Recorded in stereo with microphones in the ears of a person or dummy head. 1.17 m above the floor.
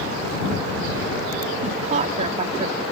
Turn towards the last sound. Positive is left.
turn(degrees=-35)  # may be behind; listen again after turning